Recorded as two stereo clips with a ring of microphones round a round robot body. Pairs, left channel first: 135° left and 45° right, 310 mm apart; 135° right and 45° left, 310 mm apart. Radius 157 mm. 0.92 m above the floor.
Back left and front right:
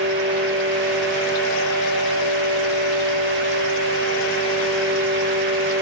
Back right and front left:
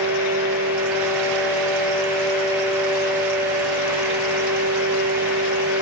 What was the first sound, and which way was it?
Only background noise.